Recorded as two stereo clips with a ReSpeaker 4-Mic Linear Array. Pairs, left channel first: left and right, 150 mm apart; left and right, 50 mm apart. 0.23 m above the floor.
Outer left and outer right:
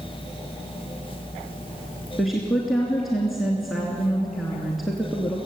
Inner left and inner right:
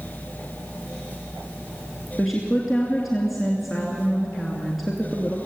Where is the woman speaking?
Centre (ahead or behind), 2.5 m.